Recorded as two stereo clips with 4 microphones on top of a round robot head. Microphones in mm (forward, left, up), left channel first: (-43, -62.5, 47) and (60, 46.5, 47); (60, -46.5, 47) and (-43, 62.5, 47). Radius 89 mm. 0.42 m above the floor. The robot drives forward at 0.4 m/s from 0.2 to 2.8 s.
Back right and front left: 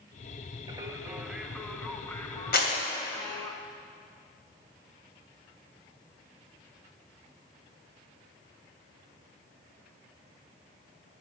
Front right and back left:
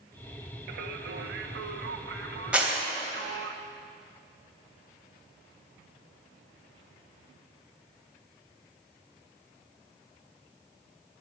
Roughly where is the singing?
Left.